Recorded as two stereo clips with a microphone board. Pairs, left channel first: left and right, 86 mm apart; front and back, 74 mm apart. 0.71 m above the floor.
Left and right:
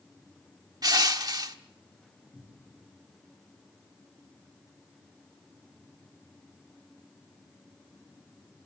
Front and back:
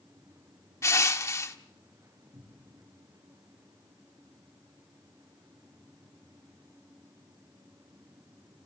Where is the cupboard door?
170° right, 8 m.